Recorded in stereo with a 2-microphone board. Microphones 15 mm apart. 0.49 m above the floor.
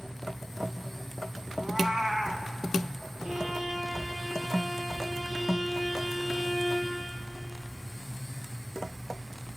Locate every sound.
1.6 s a cat meowing: 40° right (ahead or behind), 2 m
3.2 s a violin: 65° right (ahead or behind), 8.5 m